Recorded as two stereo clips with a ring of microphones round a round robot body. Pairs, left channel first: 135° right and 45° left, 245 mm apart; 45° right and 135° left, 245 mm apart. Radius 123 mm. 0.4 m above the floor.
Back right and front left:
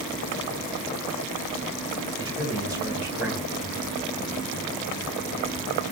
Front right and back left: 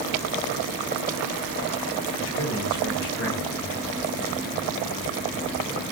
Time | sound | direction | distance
2.2 | a man speaking | 25° right | 2 m